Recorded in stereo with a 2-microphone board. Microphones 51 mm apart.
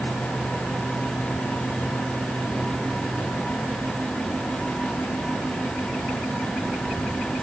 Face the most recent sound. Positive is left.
No sound to turn to.